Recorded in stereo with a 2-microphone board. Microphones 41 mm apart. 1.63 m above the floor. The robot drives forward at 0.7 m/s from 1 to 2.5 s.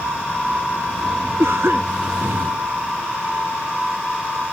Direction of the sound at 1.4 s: 75° right (ahead or behind).